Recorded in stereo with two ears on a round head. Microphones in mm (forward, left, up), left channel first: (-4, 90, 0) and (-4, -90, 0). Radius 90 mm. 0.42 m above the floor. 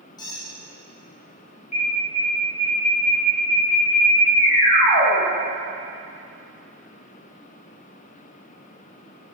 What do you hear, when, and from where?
0.2 s a squeak: 20° left (ahead or behind), 3 m
1.7 s an alarm: 35° left (ahead or behind), 2.5 m